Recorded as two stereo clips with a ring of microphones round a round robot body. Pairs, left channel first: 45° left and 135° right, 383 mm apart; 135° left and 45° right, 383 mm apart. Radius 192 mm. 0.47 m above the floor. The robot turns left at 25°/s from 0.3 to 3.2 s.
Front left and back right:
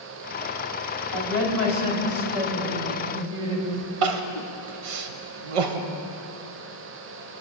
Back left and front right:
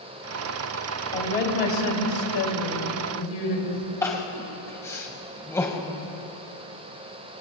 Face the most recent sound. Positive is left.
turn(degrees=-140)